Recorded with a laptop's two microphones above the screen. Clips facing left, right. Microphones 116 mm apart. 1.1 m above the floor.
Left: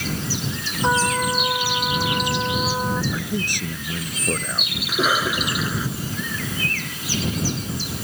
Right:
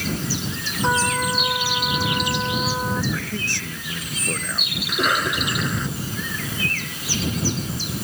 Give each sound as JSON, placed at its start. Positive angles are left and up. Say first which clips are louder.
{"t": 0.8, "sound": "a trumpet", "louder": "left 1 dB", "side_deg": 5}
{"t": 3.1, "sound": "a man speaking", "louder": "left 2 dB", "side_deg": 15}
{"t": 4.9, "sound": "a cough", "louder": "left 1 dB", "side_deg": 5}